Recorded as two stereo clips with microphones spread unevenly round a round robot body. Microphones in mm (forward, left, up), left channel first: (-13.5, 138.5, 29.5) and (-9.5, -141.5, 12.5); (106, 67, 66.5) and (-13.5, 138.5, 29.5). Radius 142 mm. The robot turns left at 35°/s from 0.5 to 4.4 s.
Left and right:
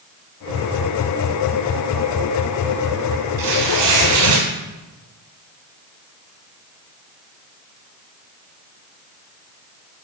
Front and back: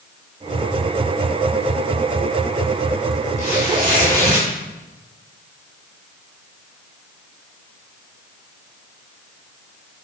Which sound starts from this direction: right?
Tearing paper, at 3.4 s.